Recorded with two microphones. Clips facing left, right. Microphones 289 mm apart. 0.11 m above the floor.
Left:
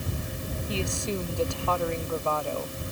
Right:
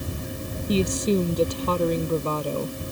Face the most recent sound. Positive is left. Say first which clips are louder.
# right 10 dB
turn(degrees=-45)  # may be behind; listen again after turning